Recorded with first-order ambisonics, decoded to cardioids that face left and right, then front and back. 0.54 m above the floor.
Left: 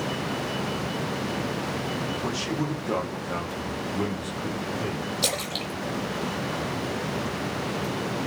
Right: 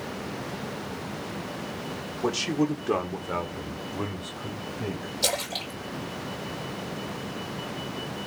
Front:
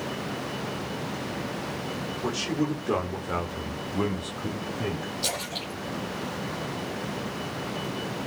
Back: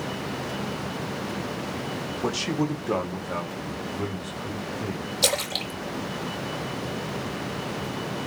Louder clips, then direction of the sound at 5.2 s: Right 1 dB, back 8 dB; 165° left.